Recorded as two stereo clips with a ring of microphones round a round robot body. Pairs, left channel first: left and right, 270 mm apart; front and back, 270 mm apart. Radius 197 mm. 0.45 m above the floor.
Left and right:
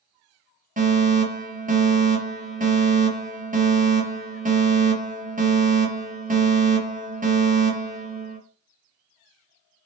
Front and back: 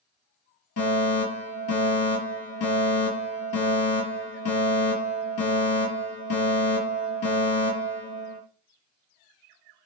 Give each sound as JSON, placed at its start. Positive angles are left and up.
{"t": 0.8, "sound": "a fire alarm", "azimuth_deg": -35, "distance_m": 6.0}